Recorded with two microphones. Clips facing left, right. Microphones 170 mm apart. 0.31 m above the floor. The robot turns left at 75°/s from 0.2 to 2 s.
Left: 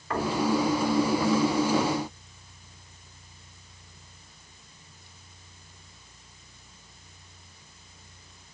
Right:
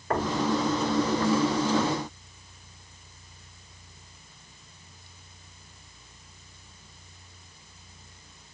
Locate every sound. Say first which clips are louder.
0.1 s knocking: right 1 dB; 50° right (ahead or behind), 1.9 m; by 0.4 s 55° right (ahead or behind), 1.9 m